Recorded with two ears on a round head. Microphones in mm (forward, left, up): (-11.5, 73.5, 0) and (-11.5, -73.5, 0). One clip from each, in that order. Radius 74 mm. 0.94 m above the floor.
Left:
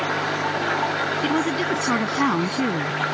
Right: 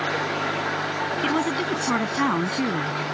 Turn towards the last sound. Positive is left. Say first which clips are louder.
# left 1 dB
turn(degrees=-5)  # may be behind; listen again after turning